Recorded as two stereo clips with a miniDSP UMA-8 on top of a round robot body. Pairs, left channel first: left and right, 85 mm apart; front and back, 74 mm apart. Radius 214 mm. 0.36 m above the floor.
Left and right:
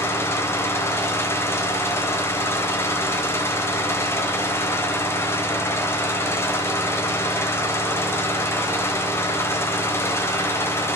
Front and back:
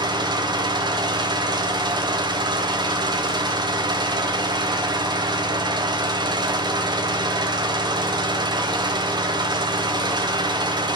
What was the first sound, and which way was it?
An engine running, 155° left.